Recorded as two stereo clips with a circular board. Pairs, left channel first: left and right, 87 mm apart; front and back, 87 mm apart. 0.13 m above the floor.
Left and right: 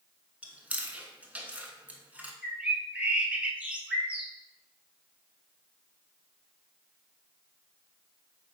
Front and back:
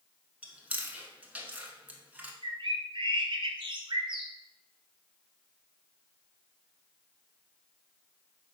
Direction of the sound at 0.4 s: 135° right.